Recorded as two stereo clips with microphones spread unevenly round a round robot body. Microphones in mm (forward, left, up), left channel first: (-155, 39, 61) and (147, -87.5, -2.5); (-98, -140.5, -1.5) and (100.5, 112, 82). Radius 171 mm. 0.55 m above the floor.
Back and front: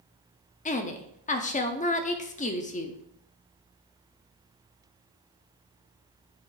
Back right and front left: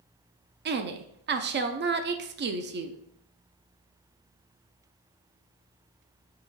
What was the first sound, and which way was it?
A woman speaking, 95° left.